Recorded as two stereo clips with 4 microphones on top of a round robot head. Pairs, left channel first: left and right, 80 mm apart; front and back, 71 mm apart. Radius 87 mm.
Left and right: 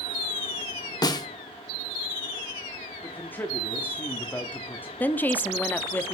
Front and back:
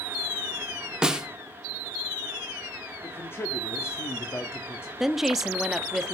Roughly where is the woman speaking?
Left.